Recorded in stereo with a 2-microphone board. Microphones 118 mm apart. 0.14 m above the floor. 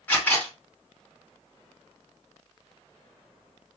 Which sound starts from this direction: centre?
A camera shutter, at 0.1 s.